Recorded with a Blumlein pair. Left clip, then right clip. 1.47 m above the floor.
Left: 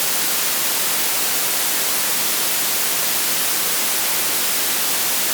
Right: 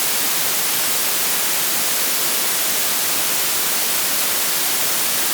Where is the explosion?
I don't hear an explosion.